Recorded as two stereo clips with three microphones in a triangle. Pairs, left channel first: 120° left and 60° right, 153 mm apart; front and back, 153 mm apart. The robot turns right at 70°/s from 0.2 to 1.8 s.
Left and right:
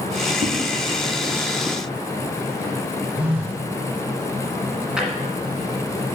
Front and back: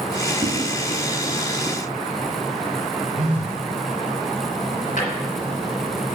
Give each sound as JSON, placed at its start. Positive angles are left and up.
{"t": 0.4, "sound": "a whoosh", "azimuth_deg": -105, "distance_m": 1.1}
{"t": 3.2, "sound": "a phone buzzing", "azimuth_deg": -145, "distance_m": 1.8}
{"t": 5.0, "sound": "a drawer", "azimuth_deg": 25, "distance_m": 1.5}